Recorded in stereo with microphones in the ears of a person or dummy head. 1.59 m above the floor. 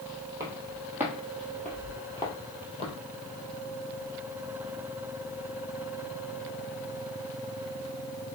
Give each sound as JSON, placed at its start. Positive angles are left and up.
{"t": 0.4, "sound": "footsteps", "side_deg": -25, "distance_m": 2.0}